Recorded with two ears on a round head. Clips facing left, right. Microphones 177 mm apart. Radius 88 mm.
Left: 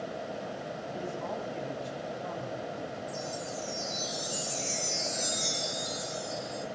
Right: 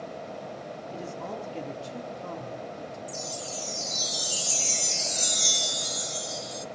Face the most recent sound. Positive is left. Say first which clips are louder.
# left 1 dB
turn(degrees=-45)  # may be behind; listen again after turning